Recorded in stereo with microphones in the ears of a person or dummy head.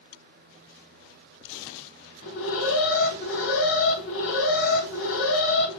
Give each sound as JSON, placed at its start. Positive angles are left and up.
{"t": 2.2, "sound": "an alarm", "side_deg": 75, "distance_m": 1.7}